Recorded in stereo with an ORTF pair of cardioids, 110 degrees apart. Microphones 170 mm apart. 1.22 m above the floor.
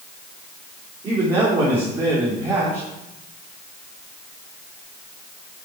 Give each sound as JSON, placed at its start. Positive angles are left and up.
{"t": 1.0, "sound": "a man speaking", "azimuth_deg": -20, "distance_m": 3.0}